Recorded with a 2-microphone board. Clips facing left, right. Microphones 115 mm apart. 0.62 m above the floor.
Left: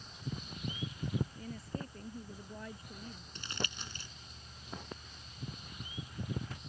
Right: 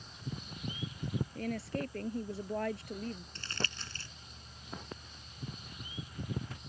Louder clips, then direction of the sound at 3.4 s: Right 1 dB; 15° left (ahead or behind).